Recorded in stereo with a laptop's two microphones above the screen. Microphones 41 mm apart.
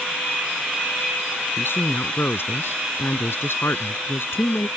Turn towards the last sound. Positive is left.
turn(degrees=80)